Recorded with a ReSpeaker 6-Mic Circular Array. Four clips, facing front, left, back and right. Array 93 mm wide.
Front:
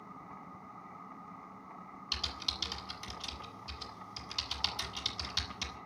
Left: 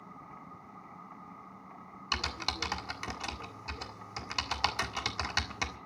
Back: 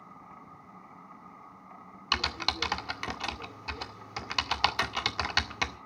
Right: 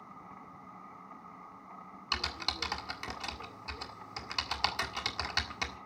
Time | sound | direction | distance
2.1 | typing on a keyboard | 170° left | 1.7 m